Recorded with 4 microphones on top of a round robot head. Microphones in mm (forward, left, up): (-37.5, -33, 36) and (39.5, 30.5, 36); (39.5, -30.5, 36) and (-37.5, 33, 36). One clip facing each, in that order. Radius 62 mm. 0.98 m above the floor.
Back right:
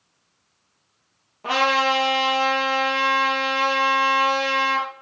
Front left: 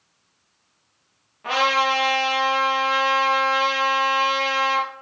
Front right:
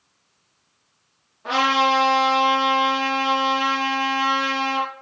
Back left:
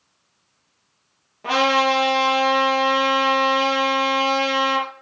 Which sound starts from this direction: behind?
A trumpet, at 1.4 s.